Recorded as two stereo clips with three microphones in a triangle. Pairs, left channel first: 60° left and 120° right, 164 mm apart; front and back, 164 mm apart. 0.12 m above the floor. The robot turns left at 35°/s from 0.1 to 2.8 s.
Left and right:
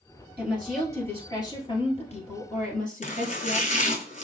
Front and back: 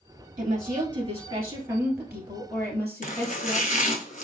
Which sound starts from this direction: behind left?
A woman speaking, at 0.4 s.